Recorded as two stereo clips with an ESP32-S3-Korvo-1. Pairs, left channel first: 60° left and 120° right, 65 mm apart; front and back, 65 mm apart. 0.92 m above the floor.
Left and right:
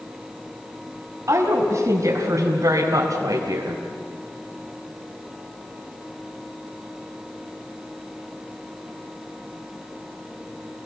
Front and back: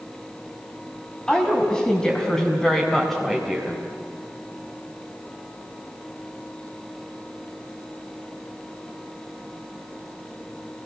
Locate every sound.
1.3 s a woman speaking: 75° right, 5 m; by 3.9 s 95° right, 3.5 m